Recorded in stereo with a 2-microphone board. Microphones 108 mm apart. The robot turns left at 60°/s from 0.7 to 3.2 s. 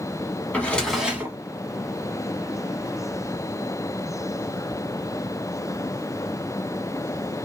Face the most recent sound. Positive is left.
turn(degrees=-140)